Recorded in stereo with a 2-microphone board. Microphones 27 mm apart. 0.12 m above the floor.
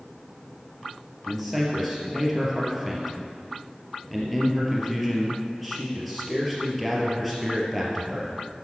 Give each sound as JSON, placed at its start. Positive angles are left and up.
{"t": 1.3, "sound": "a man speaking", "side_deg": 0, "distance_m": 3.0}